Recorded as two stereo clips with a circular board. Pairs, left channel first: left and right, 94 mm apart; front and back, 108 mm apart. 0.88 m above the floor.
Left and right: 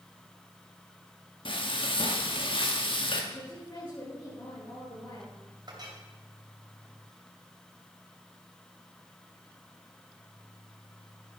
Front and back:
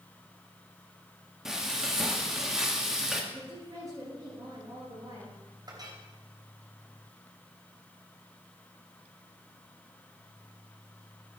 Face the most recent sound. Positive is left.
turn(degrees=-130)